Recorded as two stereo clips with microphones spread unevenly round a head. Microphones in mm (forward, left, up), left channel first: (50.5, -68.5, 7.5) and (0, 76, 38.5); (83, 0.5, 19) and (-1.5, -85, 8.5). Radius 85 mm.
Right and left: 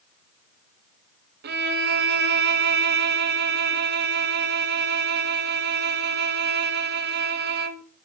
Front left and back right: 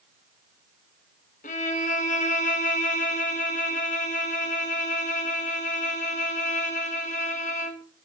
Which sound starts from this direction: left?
A violin, at 1.4 s.